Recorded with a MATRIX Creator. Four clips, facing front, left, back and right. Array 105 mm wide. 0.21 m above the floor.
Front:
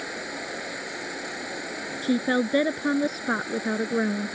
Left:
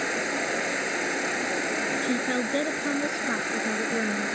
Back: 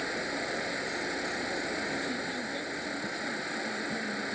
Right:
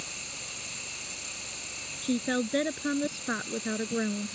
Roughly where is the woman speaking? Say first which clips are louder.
Right 3 dB, front 11 dB; ahead.